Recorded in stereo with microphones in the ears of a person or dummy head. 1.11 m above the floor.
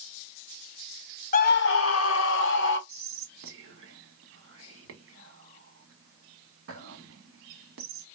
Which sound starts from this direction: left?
A scream, at 1.3 s.